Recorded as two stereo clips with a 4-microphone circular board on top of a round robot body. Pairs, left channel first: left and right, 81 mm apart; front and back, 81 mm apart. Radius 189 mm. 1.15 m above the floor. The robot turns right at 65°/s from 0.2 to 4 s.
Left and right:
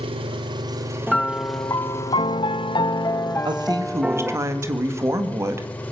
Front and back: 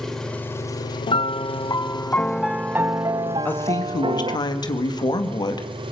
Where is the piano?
5° left, 0.5 m; by 4.4 s 165° right, 0.5 m.